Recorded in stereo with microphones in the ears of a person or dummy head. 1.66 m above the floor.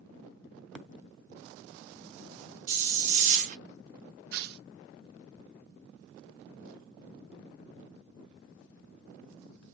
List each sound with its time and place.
2.7 s a hiss: 40° right (ahead or behind), 0.8 m
4.3 s tearing paper: 60° right (ahead or behind), 0.5 m